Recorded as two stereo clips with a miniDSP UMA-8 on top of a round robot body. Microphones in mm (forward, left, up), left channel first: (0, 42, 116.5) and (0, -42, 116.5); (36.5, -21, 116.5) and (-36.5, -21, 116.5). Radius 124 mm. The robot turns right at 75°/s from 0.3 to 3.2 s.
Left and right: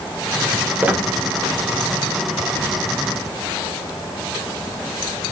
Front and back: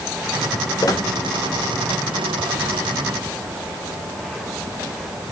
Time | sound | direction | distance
0.8 | a squeak | 25° right | 0.8 m